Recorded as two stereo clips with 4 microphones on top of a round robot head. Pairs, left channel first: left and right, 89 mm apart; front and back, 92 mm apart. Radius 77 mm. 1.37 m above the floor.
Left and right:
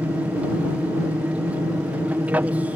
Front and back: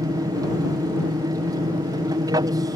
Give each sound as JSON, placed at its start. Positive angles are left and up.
{"t": 0.0, "sound": "an aircraft", "azimuth_deg": -160}